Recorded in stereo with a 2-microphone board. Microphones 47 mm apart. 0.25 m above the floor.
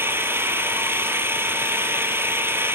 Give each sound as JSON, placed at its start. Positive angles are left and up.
{"t": 0.0, "sound": "an engine running", "side_deg": -55, "distance_m": 1.4}